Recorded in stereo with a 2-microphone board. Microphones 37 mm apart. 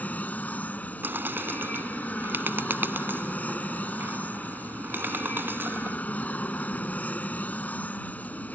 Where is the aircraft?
40° left (ahead or behind).